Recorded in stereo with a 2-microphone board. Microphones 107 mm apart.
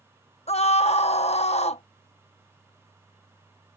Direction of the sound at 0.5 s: 85° left.